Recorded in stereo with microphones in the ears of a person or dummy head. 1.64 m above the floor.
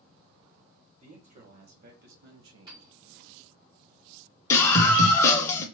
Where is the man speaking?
40° right (ahead or behind), 1.7 m; by 2.9 s 90° right, 1.1 m.